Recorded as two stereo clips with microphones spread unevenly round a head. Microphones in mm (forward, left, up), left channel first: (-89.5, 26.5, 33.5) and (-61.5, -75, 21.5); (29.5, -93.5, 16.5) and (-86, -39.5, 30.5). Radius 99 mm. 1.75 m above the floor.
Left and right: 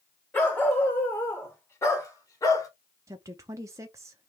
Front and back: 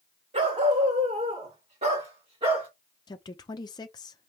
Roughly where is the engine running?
I don't hear an engine running.